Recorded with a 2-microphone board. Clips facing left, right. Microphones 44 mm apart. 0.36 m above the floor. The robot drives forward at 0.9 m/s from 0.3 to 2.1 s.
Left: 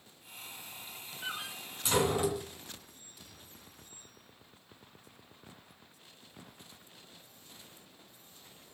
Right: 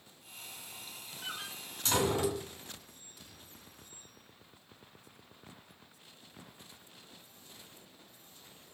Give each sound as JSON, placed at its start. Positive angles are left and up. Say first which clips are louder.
{"t": 1.2, "sound": "a door slam", "louder": "left 3 dB", "side_deg": 15, "distance_m": 2.5}